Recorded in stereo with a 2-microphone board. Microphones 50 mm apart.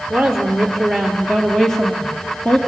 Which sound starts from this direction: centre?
A woman speaking, at 0.1 s.